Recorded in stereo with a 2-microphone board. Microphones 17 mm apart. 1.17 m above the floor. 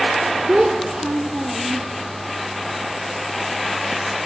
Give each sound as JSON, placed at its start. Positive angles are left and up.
{"t": 0.5, "sound": "a child speaking", "side_deg": -55, "distance_m": 1.1}